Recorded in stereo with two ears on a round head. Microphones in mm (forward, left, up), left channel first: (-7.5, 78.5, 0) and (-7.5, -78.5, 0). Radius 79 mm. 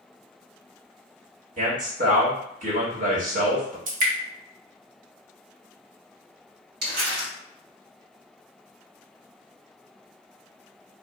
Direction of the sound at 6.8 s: 60° right (ahead or behind).